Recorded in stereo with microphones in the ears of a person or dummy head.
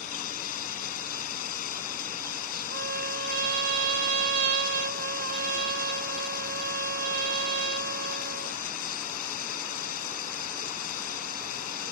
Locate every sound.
0.0 s running water: 45° left (ahead or behind)
2.7 s a trumpet: 60° right (ahead or behind)